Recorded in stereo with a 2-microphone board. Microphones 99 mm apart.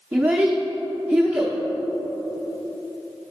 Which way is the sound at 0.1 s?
15° right (ahead or behind).